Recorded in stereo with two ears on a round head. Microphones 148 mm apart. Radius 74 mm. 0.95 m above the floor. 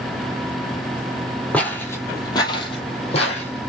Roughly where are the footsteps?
Centre.